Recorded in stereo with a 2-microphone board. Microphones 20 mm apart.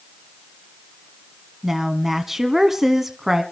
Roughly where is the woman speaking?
Right.